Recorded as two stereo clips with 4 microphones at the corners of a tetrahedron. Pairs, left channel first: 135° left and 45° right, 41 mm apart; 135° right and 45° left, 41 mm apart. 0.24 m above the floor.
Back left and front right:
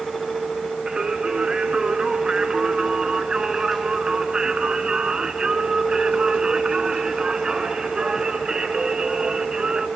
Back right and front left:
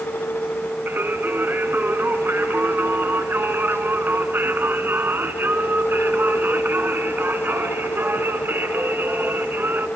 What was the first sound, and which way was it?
Singing, 25° left.